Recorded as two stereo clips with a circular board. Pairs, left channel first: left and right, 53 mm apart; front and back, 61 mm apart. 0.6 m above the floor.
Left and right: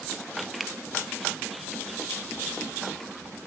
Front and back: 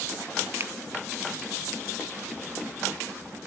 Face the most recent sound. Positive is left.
turn(degrees=180)